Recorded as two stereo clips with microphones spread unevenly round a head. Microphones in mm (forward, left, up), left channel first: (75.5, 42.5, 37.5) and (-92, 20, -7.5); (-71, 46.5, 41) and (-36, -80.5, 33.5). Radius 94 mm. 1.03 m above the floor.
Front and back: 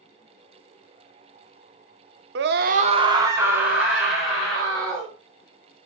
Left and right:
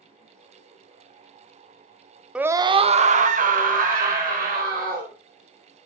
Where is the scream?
155° right, 0.7 m; by 5.1 s 80° right, 3 m.